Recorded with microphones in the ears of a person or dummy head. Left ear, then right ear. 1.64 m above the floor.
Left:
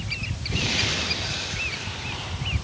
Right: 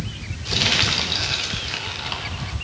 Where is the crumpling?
55° right (ahead or behind), 1.5 m.